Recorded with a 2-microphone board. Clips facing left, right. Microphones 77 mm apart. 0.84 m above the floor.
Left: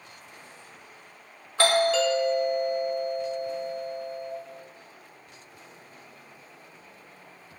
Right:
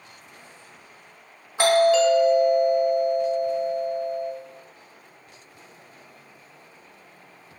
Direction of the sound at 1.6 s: 15° right (ahead or behind).